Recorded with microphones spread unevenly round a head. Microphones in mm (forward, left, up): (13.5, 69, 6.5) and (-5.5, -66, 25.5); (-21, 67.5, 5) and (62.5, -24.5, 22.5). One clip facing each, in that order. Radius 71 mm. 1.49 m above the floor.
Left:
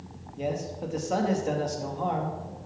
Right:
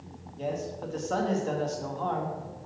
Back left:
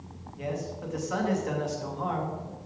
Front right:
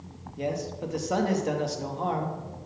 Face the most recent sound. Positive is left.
turn(degrees=5)